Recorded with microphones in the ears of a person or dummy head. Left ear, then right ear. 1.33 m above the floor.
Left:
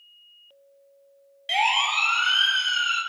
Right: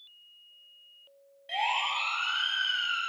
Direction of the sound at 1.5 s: 60° left (ahead or behind).